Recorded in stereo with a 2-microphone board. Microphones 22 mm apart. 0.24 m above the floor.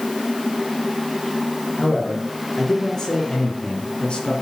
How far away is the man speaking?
About 4 m.